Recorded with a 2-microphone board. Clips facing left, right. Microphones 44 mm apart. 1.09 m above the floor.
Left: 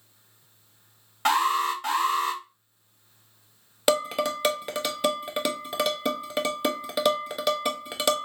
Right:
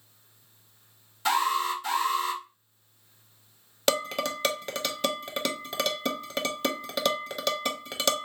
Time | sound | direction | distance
1.2 | an alarm | 50° left (ahead or behind) | 1.8 m
3.9 | dishes clattering | 10° left (ahead or behind) | 0.6 m